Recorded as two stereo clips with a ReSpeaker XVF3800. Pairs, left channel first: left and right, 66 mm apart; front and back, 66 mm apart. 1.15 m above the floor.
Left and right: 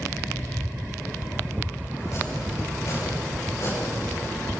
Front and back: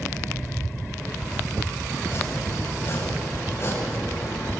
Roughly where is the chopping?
Ahead left.